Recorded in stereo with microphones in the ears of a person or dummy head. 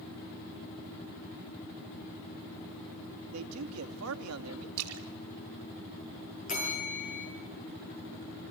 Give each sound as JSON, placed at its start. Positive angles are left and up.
{"t": 3.3, "sound": "a man speaking", "side_deg": -85, "distance_m": 2.0}
{"t": 4.8, "sound": "a splash", "side_deg": -80, "distance_m": 2.5}
{"t": 6.5, "sound": "a bell", "side_deg": 40, "distance_m": 9.0}